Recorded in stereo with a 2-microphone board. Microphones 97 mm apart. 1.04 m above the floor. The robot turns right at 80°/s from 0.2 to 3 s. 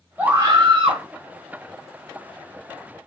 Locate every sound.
0.2 s a scream: 160° right, 1.7 m; by 1.0 s 90° right, 1.7 m